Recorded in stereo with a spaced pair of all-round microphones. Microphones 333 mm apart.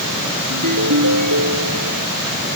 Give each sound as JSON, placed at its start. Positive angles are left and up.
{"t": 0.5, "sound": "a ringtone", "side_deg": -70}